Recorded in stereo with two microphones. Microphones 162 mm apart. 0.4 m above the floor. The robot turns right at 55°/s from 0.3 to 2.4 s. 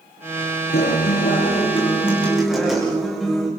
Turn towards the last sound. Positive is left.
turn(degrees=180)